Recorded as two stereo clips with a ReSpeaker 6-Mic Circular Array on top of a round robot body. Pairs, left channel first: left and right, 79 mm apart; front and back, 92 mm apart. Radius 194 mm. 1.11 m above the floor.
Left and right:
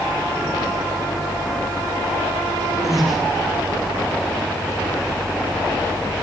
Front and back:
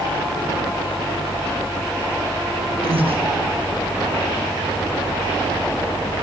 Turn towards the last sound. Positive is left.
turn(degrees=180)